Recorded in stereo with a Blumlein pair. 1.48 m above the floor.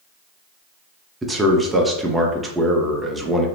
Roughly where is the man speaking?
Ahead.